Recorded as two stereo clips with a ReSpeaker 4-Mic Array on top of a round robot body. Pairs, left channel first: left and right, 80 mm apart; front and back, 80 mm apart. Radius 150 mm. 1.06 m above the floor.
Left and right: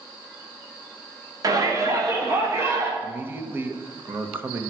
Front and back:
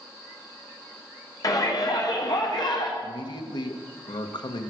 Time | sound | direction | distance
1.4 | a shout | 45° right | 2.5 m
3.0 | a man speaking | 25° right | 1.2 m